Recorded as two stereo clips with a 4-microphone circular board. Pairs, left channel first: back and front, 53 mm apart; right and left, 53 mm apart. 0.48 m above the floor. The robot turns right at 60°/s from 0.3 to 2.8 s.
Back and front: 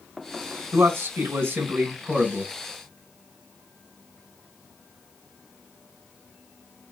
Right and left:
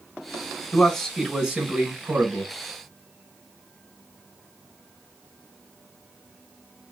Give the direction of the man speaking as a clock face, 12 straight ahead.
1 o'clock.